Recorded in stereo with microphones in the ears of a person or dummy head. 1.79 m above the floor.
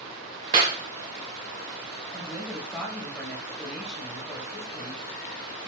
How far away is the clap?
About 0.9 m.